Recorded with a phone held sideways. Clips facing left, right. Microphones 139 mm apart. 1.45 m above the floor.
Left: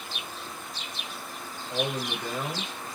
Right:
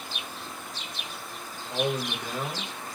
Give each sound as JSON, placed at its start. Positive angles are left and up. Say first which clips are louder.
{"t": 1.7, "sound": "a man speaking", "louder": "right 2 dB", "side_deg": 0, "distance_m": 1.5}